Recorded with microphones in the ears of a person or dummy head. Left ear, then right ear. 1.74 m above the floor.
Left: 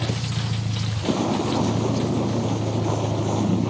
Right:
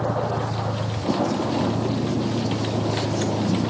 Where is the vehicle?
75° left (ahead or behind); by 3.7 s 80° left.